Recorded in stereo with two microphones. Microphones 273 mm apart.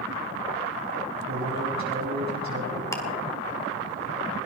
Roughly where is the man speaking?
Right.